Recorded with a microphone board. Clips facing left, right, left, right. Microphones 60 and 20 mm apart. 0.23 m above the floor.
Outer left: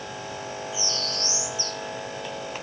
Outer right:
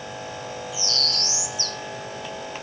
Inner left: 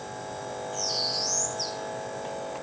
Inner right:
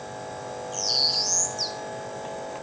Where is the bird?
70° right (ahead or behind), 1.6 m.